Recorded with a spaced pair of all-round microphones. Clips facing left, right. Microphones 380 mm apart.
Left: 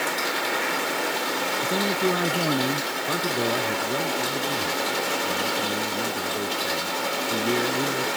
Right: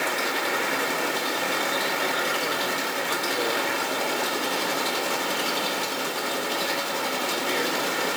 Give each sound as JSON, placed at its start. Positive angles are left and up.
{"t": 1.6, "sound": "a man speaking", "side_deg": 65}
{"t": 3.1, "sound": "a man speaking", "side_deg": 55}